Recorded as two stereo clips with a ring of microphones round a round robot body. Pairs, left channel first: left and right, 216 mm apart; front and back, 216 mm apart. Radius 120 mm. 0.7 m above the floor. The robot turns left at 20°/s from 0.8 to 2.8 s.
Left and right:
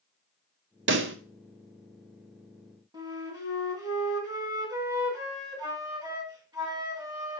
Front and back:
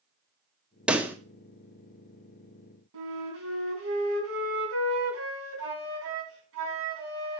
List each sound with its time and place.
0.9 s a pop: 95° right, 1.3 m; by 1.2 s 100° right, 1.3 m
2.9 s a flute: 160° right, 4.5 m